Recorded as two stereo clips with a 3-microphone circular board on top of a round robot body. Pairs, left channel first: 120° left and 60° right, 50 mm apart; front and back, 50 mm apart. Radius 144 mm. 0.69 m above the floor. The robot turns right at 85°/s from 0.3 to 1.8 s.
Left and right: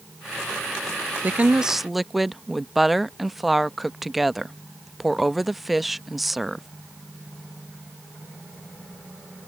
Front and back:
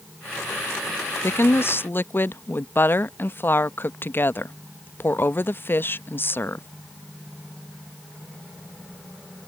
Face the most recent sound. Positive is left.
turn(degrees=30)